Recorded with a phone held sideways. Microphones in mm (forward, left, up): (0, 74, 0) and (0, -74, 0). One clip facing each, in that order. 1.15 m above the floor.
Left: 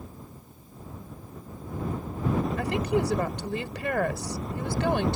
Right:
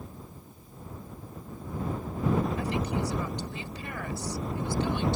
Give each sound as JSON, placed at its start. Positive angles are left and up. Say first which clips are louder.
{"t": 2.6, "sound": "a woman speaking", "louder": "left 4 dB", "side_deg": 75}